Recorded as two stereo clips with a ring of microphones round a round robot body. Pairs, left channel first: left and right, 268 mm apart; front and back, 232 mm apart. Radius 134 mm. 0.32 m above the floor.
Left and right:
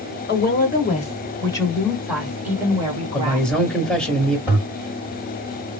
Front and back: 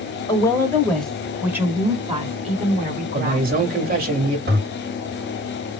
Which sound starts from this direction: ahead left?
A woman speaking, at 0.3 s.